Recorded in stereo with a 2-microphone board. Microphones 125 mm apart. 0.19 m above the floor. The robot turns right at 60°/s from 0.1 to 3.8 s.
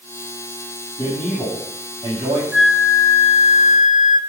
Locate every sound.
1.0 s a man speaking: 155° left, 5.5 m; by 2.4 s 120° right, 5.5 m
2.5 s a flute: straight ahead, 0.5 m; by 4.2 s 75° left, 0.5 m